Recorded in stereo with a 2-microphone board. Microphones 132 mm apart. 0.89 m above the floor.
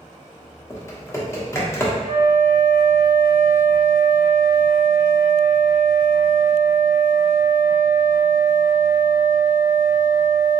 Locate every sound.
0.7 s typing on a keyboard: 20° left (ahead or behind), 0.7 m
2.0 s a flute: 45° right (ahead or behind), 0.7 m